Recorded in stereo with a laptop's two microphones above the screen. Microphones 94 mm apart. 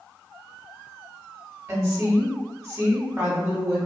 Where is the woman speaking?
30° right (ahead or behind), 1.5 m.